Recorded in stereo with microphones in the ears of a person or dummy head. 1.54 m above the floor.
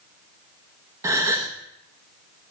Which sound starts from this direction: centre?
A gasp, at 1.0 s.